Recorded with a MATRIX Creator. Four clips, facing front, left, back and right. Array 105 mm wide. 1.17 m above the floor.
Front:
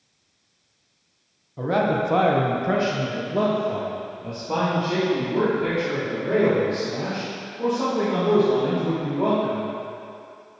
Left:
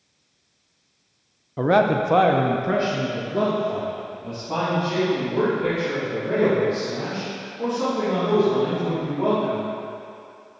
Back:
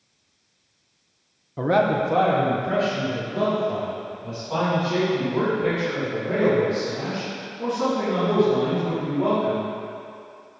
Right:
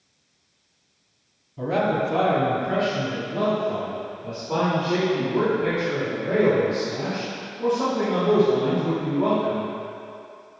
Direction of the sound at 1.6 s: 115° left.